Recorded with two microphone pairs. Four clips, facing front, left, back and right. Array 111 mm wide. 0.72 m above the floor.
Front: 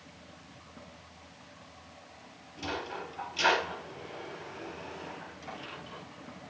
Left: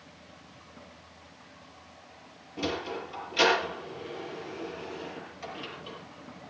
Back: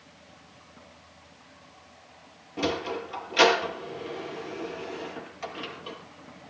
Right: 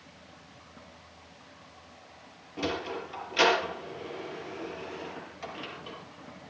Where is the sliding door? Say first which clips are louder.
Even, back 8 dB; 160° right, 6 m.